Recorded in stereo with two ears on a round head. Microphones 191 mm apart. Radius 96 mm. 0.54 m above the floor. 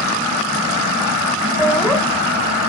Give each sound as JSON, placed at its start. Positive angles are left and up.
{"t": 1.6, "sound": "laughter", "side_deg": 0, "distance_m": 2.0}